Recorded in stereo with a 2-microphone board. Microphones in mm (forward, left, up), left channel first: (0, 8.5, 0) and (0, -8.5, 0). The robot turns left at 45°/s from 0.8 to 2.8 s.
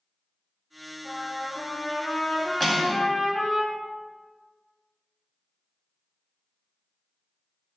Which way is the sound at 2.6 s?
15° left (ahead or behind).